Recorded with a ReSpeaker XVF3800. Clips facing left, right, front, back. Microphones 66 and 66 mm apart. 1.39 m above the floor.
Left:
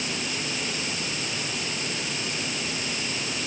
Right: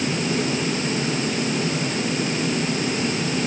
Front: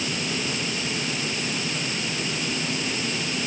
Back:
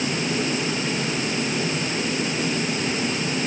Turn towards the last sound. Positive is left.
No sound to turn to.